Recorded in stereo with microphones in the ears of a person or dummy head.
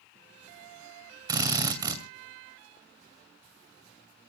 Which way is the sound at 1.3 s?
25° right (ahead or behind).